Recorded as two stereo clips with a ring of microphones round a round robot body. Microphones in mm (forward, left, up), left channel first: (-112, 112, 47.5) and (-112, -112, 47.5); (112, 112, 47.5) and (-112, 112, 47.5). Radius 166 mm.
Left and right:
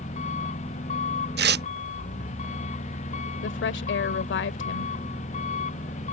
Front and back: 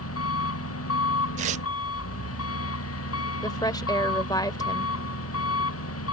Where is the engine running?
20° left.